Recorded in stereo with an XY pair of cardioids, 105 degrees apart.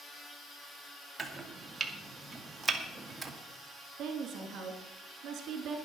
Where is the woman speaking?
70° right, 3 m.